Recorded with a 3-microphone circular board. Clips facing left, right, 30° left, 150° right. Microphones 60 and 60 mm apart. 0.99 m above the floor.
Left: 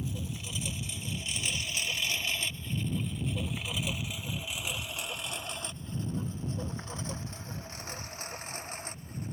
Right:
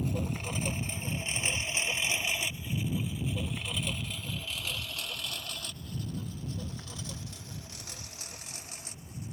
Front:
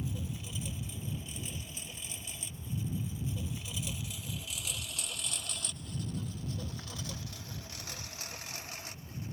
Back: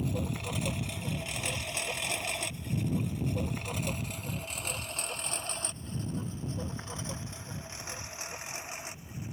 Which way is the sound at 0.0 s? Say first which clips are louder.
Right 5 dB, back 7 dB; 125° right.